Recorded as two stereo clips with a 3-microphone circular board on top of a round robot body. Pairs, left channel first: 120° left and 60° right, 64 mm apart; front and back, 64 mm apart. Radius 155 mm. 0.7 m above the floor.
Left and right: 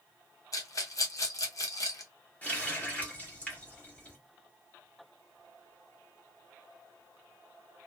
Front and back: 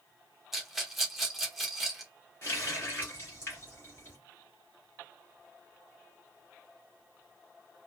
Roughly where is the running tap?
Ahead left.